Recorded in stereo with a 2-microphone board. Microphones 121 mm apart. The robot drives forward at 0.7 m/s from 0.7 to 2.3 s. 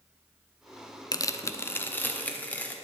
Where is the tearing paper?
35° left (ahead or behind), 0.5 m; by 2.7 s 15° left (ahead or behind), 1.3 m.